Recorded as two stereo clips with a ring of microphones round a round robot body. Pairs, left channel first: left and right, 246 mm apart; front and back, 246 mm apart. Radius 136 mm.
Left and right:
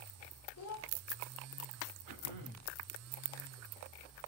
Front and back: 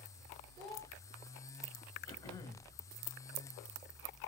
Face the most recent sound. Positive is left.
turn(degrees=-75)